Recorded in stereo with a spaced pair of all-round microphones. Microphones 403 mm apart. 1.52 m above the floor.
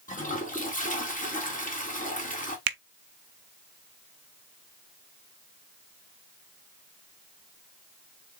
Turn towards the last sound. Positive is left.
turn(degrees=-60)  # may be behind; listen again after turning